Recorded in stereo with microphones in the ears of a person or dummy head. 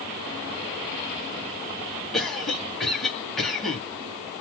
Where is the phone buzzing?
No phone buzzing in this recording.